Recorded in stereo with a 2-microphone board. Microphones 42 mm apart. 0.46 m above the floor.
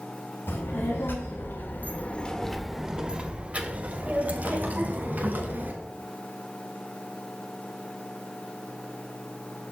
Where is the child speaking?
70° left (ahead or behind), 2 m; by 5.7 s 55° right (ahead or behind), 3.5 m.